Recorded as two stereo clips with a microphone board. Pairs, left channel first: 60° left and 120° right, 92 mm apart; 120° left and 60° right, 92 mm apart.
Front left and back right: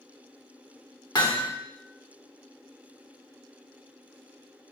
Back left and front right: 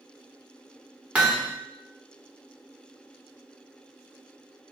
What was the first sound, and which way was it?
Hammering, 20° left.